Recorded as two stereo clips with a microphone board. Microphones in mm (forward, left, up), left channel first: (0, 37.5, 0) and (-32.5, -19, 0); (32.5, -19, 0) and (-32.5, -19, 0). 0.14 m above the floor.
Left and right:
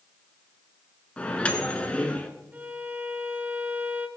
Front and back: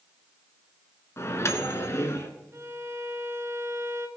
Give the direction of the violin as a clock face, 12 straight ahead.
6 o'clock.